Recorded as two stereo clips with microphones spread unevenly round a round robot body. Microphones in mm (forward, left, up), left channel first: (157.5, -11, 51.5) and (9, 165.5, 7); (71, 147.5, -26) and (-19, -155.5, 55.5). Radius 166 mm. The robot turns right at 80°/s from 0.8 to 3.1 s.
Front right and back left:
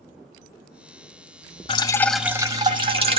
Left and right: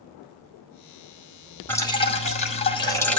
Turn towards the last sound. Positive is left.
turn(degrees=130)